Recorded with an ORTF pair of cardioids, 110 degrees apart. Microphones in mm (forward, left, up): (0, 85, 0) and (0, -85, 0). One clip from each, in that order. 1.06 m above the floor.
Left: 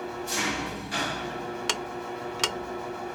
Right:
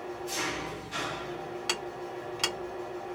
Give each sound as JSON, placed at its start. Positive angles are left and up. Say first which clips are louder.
{"t": 0.0, "sound": "an engine running", "louder": "left 4 dB", "azimuth_deg": 50, "distance_m": 0.8}
{"t": 1.7, "sound": "ticking", "louder": "left 3 dB", "azimuth_deg": 25, "distance_m": 0.5}